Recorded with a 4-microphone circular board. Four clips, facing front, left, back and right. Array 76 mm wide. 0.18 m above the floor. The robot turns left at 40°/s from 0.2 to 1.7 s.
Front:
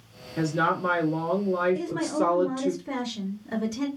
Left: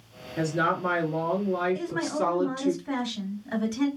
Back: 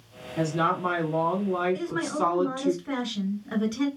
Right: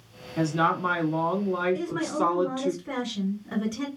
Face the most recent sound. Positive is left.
turn(degrees=-155)